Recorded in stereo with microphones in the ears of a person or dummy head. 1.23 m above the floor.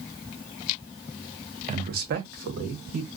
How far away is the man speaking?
About 0.7 m.